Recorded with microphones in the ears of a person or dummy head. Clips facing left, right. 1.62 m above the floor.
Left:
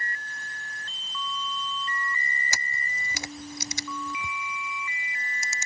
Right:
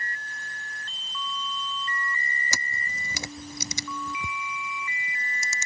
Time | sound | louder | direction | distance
2.5 | a camera shutter | right 1 dB | 75° right (ahead or behind) | ?